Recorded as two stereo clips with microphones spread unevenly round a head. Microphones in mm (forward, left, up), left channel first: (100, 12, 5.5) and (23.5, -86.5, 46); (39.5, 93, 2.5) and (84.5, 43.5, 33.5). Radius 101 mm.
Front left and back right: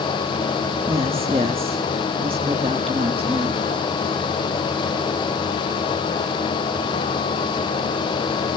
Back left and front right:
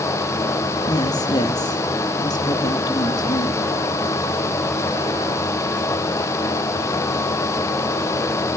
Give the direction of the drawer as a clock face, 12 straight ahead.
No drawer in this recording.